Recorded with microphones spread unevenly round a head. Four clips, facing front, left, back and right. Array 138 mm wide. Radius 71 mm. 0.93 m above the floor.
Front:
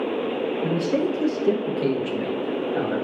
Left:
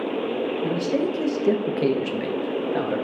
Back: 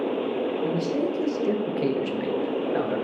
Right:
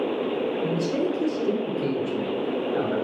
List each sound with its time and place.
0.6 s a man speaking: 20° left, 0.6 m; by 3.0 s 125° left, 1.0 m